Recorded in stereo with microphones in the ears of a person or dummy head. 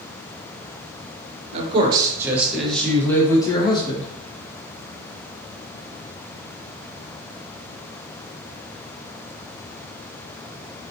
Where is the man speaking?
35° right (ahead or behind), 1.2 m; by 4.1 s 30° left (ahead or behind), 1.8 m.